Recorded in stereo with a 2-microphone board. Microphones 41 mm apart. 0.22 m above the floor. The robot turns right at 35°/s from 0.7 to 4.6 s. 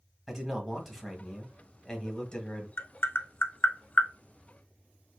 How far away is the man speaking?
About 1.1 m.